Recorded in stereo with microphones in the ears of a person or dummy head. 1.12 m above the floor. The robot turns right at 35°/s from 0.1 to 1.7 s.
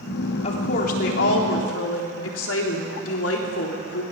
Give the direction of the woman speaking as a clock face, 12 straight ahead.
11 o'clock.